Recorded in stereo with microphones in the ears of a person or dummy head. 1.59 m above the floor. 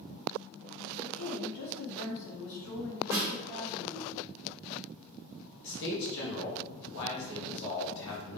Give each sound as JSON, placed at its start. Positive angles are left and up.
{"t": 1.0, "sound": "a woman speaking", "side_deg": 35, "distance_m": 0.7}
{"t": 3.1, "sound": "a snare drum", "side_deg": -15, "distance_m": 0.9}
{"t": 5.6, "sound": "a man speaking", "side_deg": 65, "distance_m": 1.3}